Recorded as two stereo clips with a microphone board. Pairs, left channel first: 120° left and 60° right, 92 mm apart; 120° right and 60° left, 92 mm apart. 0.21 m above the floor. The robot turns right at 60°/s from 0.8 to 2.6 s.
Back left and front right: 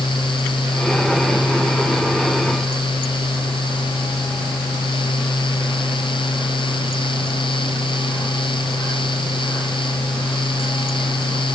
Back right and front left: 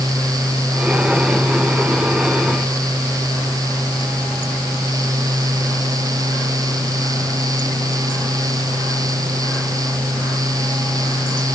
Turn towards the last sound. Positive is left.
No sound to turn to.